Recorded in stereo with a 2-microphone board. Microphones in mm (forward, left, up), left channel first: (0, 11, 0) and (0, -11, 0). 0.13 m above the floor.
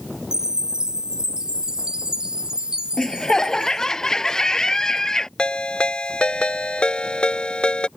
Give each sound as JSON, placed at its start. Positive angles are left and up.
{"t": 0.3, "sound": "a chime", "side_deg": -35}
{"t": 3.0, "sound": "laughter", "side_deg": 30}
{"t": 5.4, "sound": "a ringtone", "side_deg": 45}